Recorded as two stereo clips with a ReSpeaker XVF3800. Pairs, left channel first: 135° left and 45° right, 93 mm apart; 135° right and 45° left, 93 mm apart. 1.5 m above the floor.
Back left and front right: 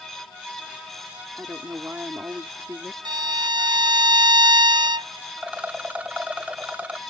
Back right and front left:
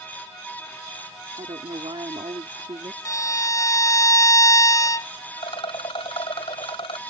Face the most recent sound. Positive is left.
turn(degrees=-120)